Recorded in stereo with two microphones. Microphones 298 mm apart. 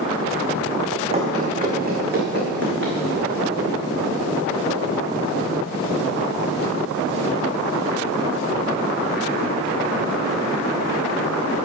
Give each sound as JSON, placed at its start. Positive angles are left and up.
{"t": 1.1, "sound": "running footsteps", "side_deg": -20, "distance_m": 2.5}